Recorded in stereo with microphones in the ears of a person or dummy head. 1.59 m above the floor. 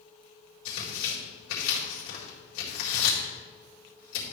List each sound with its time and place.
0.7 s tearing paper: 75° left (ahead or behind), 4 m